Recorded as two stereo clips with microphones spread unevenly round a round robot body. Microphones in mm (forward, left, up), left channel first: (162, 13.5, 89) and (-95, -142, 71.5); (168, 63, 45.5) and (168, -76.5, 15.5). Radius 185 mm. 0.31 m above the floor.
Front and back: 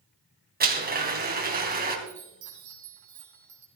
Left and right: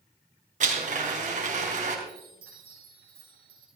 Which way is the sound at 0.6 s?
90° right.